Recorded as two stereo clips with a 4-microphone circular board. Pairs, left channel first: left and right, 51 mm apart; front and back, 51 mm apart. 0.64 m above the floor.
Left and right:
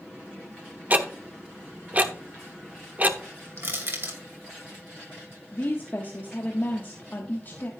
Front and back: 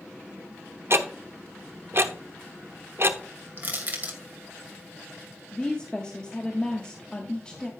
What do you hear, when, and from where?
0.9 s ticking: 145° right, 0.9 m
3.6 s crushing: 125° right, 2.5 m
5.5 s a woman speaking: 65° left, 1.3 m